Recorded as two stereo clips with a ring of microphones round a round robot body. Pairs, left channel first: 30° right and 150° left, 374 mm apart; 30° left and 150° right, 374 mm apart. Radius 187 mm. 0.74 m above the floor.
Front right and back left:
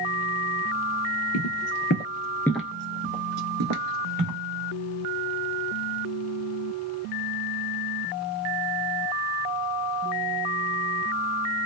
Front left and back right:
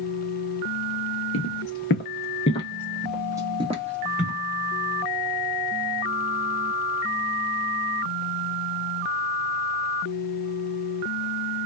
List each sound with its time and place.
1.3 s footsteps: 5° right, 0.9 m; by 4.4 s 150° left, 1.1 m